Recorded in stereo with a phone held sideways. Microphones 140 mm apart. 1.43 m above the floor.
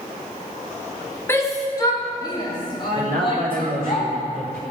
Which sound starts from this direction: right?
A man speaking, at 3.0 s.